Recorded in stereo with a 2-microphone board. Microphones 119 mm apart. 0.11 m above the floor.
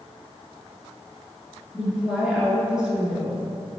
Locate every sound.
1.7 s a woman speaking: 5° right (ahead or behind), 1.7 m